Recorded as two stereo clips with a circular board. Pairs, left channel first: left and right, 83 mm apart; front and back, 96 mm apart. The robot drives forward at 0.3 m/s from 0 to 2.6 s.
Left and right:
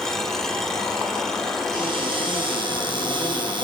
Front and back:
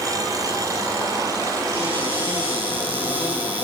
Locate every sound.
1.7 s a cupboard door: 105° right, 7.5 m; by 3.6 s 110° right, 7.5 m